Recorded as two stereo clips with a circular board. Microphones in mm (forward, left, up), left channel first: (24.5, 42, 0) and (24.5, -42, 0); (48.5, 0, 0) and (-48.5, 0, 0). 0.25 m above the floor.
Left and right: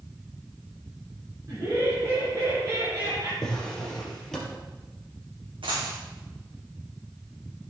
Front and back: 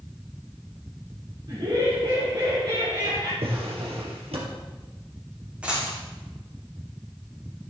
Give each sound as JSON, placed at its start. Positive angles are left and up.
{"t": 1.5, "sound": "laughter", "azimuth_deg": -140, "distance_m": 3.5}
{"t": 3.4, "sound": "a drawer", "azimuth_deg": 175, "distance_m": 3.0}
{"t": 5.6, "sound": "a dropped coin", "azimuth_deg": -100, "distance_m": 4.5}